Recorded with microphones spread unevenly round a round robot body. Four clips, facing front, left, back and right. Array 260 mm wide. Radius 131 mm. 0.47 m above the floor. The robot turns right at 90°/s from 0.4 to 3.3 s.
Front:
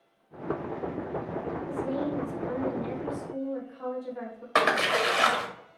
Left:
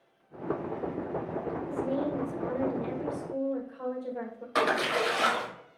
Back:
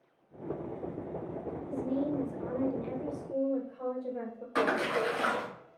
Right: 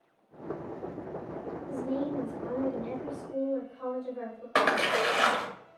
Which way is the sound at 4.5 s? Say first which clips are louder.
Right 1 dB, front 4 dB; 35° right.